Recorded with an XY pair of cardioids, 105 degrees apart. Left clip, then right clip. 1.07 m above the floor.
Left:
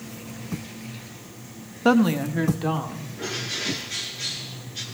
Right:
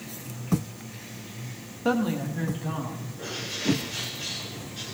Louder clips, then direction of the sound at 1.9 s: Left 6 dB; 45° left.